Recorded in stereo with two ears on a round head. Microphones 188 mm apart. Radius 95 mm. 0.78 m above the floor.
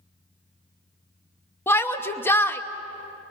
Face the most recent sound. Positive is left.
turn(degrees=10)  # may be behind; listen again after turning